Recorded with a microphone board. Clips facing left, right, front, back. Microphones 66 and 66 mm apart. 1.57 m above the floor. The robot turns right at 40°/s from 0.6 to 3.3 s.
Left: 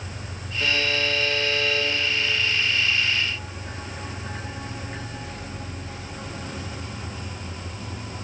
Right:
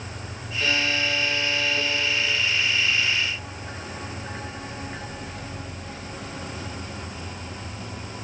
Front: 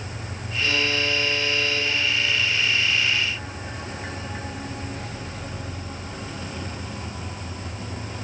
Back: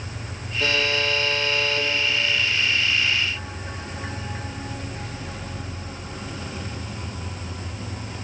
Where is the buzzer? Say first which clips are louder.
Even, back 1 dB; 170° left, 7 m; by 1.9 s 140° right, 7 m.